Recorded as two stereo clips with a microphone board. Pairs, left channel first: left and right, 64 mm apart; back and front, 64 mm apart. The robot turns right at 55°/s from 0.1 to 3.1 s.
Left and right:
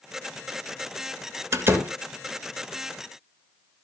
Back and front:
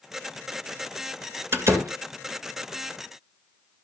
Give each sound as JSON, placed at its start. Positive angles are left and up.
{"t": 1.5, "sound": "a door slam", "azimuth_deg": -45, "distance_m": 1.7}